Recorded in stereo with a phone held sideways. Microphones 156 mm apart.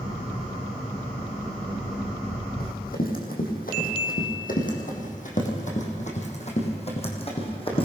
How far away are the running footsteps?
About 4 m.